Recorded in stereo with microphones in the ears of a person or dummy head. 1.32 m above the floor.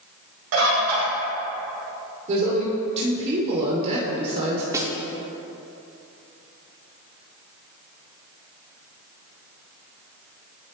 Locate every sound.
0.5 s a bird: 65° right (ahead or behind), 1.5 m
2.3 s a woman speaking: 35° right (ahead or behind), 0.9 m
4.7 s a snare drum: 15° right (ahead or behind), 0.8 m